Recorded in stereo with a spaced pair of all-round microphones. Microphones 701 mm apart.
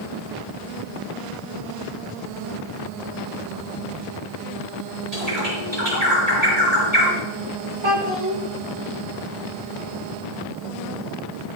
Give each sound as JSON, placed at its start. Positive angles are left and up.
{"t": 5.1, "sound": "a bird", "side_deg": -60, "distance_m": 5.0}
{"t": 7.8, "sound": "a child speaking", "side_deg": -45, "distance_m": 1.3}